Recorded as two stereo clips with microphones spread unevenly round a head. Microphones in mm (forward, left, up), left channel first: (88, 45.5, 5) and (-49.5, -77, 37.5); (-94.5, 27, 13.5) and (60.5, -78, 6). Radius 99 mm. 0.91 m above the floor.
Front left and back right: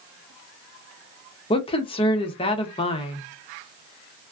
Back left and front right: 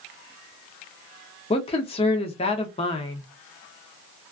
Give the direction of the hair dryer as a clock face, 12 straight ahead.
I don't hear a hair dryer.